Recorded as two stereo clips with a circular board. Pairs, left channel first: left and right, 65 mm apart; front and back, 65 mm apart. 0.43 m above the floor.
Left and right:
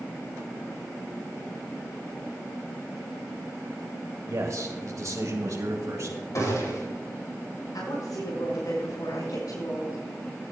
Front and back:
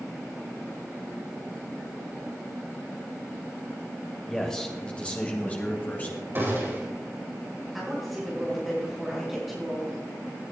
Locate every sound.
4.3 s a man speaking: 85° right, 2 m; by 6.2 s 55° right, 3.5 m
6.3 s a gunshot: 125° left, 5 m
7.7 s a woman speaking: 95° left, 5.5 m